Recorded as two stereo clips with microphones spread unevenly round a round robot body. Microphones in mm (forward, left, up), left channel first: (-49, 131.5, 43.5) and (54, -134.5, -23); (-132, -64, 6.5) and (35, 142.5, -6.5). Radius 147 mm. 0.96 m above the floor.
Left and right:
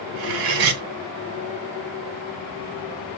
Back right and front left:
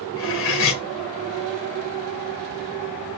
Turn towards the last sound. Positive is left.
turn(degrees=-75)